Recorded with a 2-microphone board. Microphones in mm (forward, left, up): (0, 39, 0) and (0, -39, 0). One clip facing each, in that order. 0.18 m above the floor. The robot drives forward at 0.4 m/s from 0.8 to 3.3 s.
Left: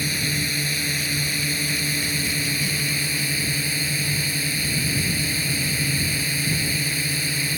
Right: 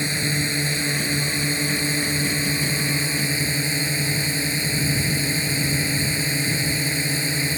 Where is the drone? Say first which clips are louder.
Right 2 dB; 25° right (ahead or behind).